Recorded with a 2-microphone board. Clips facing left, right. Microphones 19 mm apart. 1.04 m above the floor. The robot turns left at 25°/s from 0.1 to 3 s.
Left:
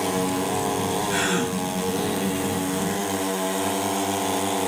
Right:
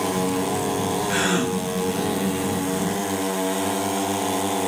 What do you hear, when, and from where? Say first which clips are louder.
1.1 s a gasp: right 3 dB; 30° right (ahead or behind), 1.1 m; by 1.6 s 40° right (ahead or behind), 1.1 m